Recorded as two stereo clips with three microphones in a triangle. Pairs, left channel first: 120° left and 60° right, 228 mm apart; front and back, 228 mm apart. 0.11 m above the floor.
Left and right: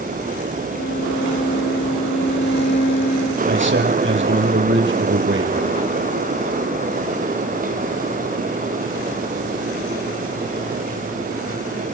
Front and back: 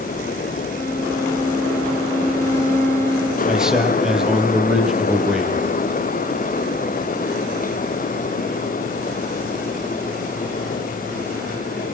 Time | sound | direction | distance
0.7 | a violin | 80° left | 2.5 m
3.5 | a man speaking | 90° right | 3.5 m